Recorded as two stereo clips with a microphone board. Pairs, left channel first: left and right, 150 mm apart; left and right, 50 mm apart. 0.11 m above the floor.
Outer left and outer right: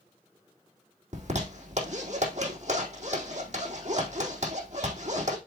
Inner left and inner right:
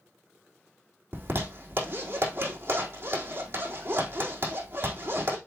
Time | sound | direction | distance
1.1 | a zipper | 50° right (ahead or behind) | 4 m